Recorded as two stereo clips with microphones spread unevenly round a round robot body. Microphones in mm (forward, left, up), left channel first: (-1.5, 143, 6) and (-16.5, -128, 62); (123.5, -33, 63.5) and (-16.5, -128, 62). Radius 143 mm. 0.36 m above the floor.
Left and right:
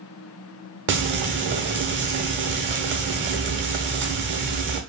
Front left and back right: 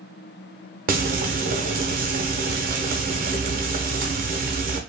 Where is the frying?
145° right, 0.9 m.